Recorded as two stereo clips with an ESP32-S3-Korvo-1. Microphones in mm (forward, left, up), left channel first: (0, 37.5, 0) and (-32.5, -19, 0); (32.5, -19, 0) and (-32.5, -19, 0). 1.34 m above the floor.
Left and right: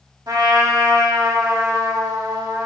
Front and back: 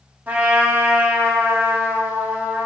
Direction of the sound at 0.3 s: 110° right.